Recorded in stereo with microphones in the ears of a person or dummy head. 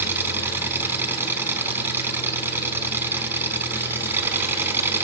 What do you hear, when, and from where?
0.0 s an engine running: 5° right (ahead or behind), 4 m